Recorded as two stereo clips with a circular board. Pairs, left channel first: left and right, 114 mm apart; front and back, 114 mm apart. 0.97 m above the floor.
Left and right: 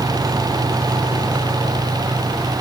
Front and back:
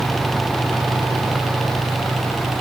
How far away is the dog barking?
I don't hear a dog barking.